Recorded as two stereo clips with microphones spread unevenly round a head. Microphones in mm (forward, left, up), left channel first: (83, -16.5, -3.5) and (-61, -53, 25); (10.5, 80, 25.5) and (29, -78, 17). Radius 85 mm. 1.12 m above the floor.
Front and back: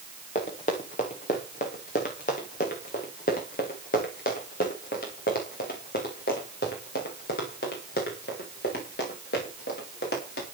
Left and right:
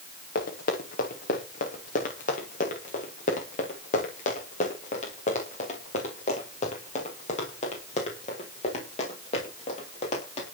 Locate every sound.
0.3 s running footsteps: 65° left, 5.5 m; by 10.4 s 50° left, 11 m